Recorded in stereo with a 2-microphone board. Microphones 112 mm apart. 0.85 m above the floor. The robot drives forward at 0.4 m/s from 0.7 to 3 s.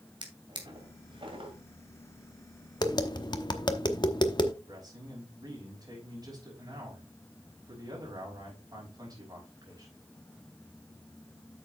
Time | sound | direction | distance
0.2 | a drawer | 45° right (ahead or behind) | 2.5 m
2.8 | tapping | 40° left (ahead or behind) | 0.9 m
4.7 | a man speaking | 35° right (ahead or behind) | 5.5 m